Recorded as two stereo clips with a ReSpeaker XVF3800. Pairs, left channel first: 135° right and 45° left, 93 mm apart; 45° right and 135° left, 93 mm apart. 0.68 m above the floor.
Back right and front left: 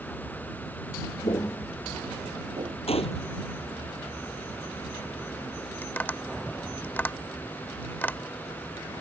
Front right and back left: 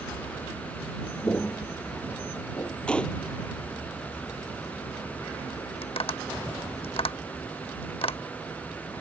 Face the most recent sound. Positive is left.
turn(degrees=-65)